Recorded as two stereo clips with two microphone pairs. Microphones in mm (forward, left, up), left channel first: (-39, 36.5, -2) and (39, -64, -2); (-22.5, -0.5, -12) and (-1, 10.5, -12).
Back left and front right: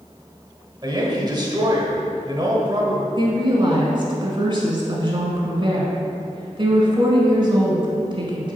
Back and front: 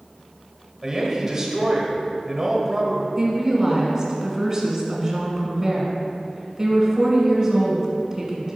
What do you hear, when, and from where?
0.8 s a woman speaking: 25° right, 1.2 m
3.2 s a woman speaking: 30° right, 1.5 m